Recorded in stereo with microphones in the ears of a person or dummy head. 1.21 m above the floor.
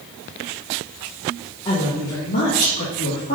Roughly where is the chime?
No chime in this recording.